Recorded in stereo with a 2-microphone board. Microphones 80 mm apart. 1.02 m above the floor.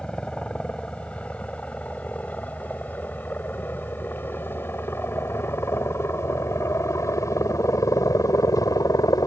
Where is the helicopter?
10° left (ahead or behind); by 9.3 s 50° left (ahead or behind).